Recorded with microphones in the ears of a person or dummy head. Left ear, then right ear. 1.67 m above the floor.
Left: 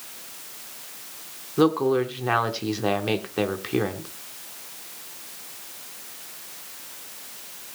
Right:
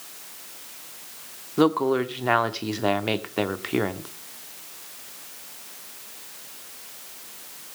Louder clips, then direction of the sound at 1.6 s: Even; 15° right (ahead or behind).